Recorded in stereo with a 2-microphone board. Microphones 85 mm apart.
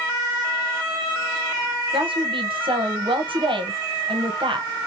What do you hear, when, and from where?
1.9 s a woman speaking: 75° right (ahead or behind), 1.3 m